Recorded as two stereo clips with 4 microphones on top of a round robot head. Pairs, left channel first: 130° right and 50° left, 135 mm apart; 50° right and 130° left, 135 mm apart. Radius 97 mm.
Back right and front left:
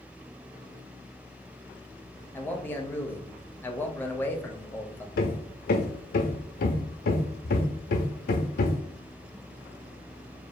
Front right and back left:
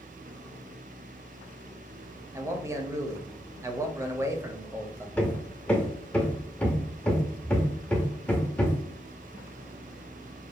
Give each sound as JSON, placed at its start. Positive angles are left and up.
{"t": 2.3, "sound": "a man speaking", "azimuth_deg": 170, "distance_m": 0.9}
{"t": 5.2, "sound": "hammering", "azimuth_deg": -135, "distance_m": 0.5}